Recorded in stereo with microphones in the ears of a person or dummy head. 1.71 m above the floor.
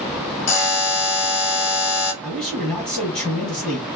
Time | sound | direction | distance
0.5 | a buzzer | 70° left (ahead or behind) | 0.8 m
2.2 | a man speaking | 5° left (ahead or behind) | 1.2 m